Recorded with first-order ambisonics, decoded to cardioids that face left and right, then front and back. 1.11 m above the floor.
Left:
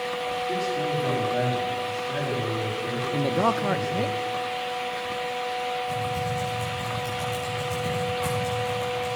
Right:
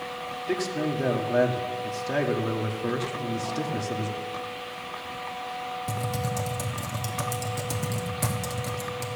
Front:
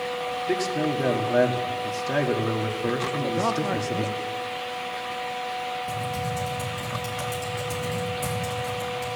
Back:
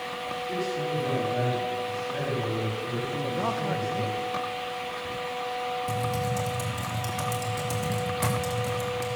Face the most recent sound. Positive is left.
turn(degrees=-105)